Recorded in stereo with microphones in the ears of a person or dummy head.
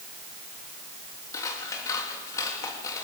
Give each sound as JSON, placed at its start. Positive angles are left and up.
{"t": 1.3, "sound": "scissors", "side_deg": 25, "distance_m": 3.5}